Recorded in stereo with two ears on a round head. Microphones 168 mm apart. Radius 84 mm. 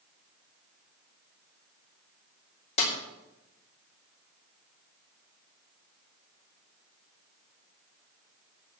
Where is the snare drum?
35° left (ahead or behind), 3.5 m.